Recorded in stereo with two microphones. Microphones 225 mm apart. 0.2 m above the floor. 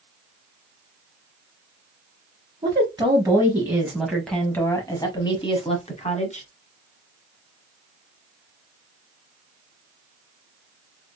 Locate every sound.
2.6 s a woman speaking: 20° right (ahead or behind), 1.4 m; by 6.5 s 30° left (ahead or behind), 1.5 m